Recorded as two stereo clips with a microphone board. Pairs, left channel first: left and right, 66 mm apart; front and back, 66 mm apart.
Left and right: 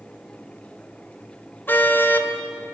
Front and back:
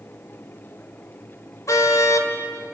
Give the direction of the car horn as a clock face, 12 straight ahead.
11 o'clock.